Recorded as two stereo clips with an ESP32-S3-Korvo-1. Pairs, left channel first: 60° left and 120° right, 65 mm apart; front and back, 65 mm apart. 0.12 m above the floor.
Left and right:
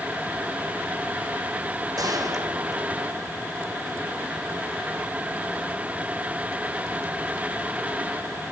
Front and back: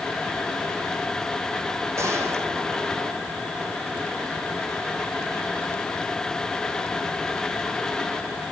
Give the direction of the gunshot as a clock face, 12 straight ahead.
5 o'clock.